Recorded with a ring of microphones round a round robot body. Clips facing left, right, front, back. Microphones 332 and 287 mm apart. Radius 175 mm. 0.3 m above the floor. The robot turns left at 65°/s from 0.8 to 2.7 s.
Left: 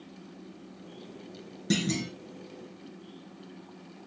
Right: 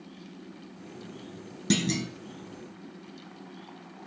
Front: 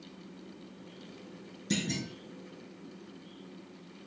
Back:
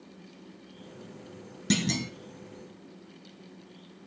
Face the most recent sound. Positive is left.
turn(degrees=135)